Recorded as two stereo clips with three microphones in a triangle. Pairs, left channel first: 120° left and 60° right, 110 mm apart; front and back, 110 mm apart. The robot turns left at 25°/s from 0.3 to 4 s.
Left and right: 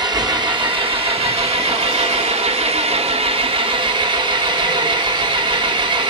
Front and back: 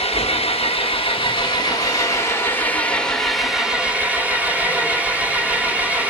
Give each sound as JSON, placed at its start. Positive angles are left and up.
{"t": 0.0, "sound": "an engine running", "azimuth_deg": -15, "distance_m": 1.3}